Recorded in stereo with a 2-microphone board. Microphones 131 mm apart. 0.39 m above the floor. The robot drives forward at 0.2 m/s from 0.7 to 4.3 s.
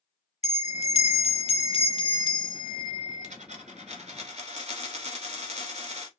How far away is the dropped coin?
About 1.0 m.